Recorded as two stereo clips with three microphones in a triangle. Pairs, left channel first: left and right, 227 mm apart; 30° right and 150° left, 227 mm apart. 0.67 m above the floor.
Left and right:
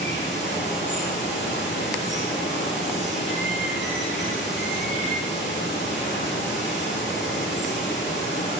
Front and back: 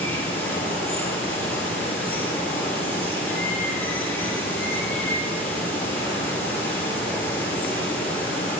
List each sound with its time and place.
0.0 s running water: 50° left, 5.5 m